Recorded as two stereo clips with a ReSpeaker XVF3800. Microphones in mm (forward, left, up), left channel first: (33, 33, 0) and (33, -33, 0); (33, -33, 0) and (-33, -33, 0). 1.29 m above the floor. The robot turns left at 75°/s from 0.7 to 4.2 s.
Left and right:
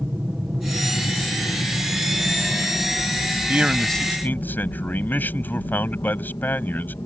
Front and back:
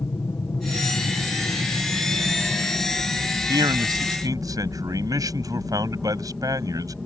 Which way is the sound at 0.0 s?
20° right.